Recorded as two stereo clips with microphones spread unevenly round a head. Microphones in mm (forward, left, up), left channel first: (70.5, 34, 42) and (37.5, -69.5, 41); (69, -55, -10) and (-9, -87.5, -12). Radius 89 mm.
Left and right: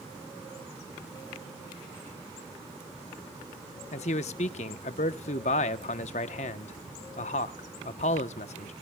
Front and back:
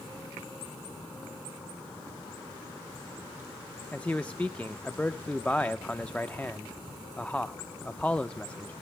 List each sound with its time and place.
3.9 s a man speaking: 105° left, 0.9 m